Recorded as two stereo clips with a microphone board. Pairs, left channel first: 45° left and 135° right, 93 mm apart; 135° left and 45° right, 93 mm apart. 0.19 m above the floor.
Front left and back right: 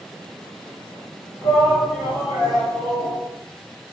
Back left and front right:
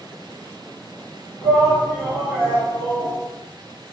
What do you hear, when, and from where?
1.4 s a shout: 130° right, 1.8 m; by 3.1 s 85° left, 1.8 m